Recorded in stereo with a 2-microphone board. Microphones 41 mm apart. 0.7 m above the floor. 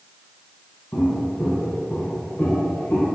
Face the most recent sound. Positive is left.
turn(degrees=80)